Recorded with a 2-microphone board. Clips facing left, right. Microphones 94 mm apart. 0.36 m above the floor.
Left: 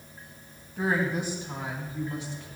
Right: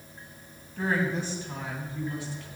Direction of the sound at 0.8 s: 15° left (ahead or behind).